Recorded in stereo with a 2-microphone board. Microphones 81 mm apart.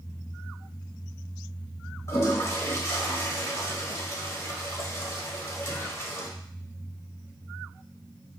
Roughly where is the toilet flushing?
Left.